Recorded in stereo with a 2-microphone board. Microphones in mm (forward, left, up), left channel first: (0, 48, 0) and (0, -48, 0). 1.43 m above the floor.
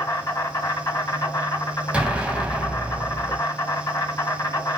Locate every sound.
0.0 s an insect: 40° left (ahead or behind), 1.8 m
1.9 s an explosion: 10° right (ahead or behind), 0.7 m